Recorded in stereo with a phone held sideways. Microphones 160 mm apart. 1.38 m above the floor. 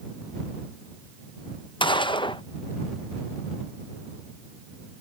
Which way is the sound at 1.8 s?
30° left (ahead or behind).